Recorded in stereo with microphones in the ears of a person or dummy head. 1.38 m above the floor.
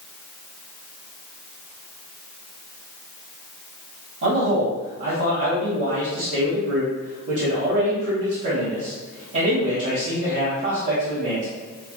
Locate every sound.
4.2 s a man speaking: 65° right (ahead or behind), 1.6 m